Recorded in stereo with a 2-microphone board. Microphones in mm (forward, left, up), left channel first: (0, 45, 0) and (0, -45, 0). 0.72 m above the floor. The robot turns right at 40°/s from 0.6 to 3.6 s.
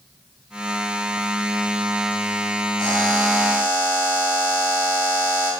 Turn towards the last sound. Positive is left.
turn(degrees=150)